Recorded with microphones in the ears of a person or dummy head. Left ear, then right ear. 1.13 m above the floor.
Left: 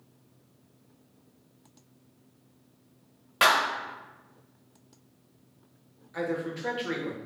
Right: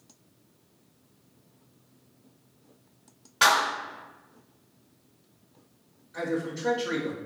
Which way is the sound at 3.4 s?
50° left (ahead or behind).